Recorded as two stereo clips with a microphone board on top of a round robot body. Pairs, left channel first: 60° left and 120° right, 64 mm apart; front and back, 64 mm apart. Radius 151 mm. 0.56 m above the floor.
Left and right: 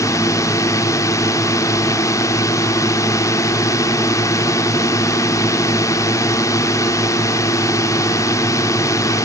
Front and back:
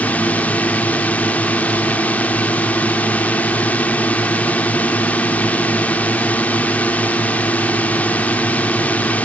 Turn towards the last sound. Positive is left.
turn(degrees=60)